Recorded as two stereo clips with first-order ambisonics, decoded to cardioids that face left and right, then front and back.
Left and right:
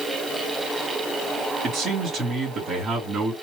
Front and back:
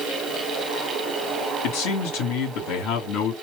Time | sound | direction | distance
1.6 | a man speaking | 20° right | 3.5 m